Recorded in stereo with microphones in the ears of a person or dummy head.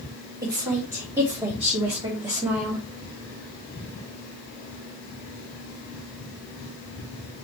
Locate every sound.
0.4 s a woman speaking: 20° right (ahead or behind), 2 m